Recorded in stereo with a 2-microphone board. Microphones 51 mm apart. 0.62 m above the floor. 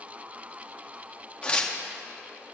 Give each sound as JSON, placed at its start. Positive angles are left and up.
{"t": 1.4, "sound": "tearing paper", "side_deg": 20, "distance_m": 0.9}